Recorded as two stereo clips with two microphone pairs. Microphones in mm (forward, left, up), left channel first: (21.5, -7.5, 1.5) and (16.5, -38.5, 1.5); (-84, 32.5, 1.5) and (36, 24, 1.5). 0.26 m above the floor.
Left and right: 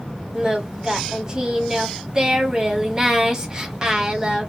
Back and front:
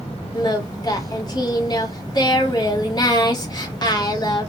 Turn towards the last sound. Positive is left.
turn(degrees=-150)